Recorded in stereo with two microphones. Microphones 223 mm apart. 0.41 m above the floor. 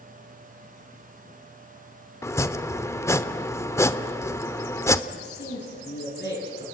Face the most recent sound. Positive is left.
turn(degrees=50)  # may be behind; listen again after turning